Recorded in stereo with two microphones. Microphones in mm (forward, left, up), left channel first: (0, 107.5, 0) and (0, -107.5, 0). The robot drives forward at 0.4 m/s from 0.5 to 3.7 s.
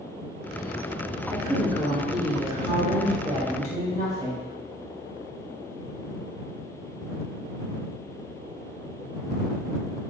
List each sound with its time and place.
1.3 s a woman speaking: 30° right (ahead or behind), 1.5 m; by 4.5 s 20° right (ahead or behind), 2.5 m